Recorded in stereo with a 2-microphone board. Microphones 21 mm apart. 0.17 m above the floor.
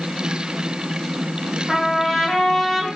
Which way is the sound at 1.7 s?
15° left (ahead or behind).